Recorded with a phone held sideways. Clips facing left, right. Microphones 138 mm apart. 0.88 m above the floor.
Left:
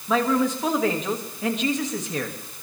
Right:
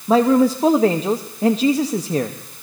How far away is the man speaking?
About 0.9 m.